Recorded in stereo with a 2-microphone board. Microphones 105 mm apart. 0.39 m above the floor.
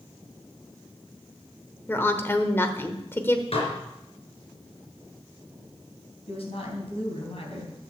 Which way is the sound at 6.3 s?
70° left (ahead or behind).